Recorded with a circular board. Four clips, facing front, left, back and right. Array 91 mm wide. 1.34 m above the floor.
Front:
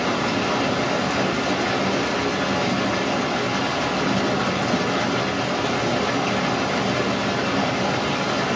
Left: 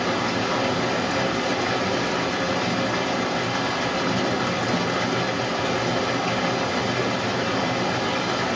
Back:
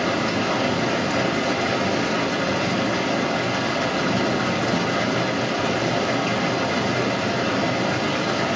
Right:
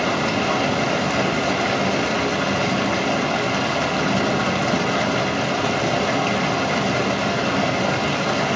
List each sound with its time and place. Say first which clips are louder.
0.0 s running water: right 3 dB, even; 95° right, 1.0 m